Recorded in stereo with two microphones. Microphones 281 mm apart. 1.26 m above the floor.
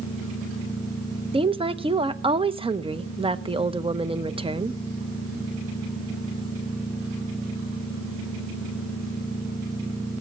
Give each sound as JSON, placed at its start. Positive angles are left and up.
{"t": 1.3, "sound": "a woman speaking", "side_deg": -20, "distance_m": 0.8}